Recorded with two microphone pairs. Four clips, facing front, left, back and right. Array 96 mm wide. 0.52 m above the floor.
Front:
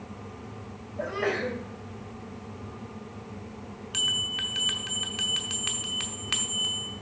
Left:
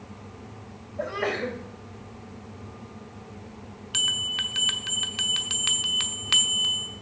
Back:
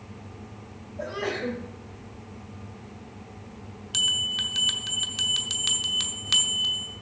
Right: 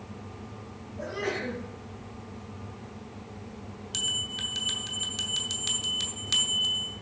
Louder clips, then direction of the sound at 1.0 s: Left 4 dB, front 2 dB; 85° left.